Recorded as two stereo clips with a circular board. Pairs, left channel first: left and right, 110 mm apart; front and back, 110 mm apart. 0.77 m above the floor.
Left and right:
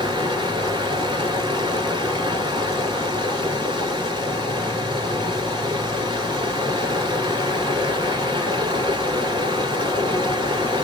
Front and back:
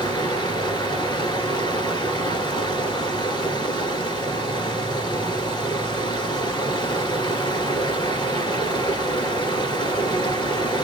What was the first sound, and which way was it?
Running water, 45° right.